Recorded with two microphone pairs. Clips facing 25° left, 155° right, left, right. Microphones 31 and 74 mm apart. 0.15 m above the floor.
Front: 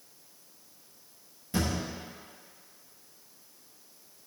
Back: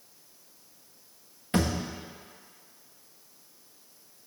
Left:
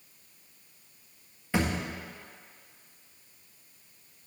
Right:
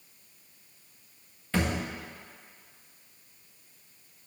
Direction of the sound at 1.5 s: 170° left.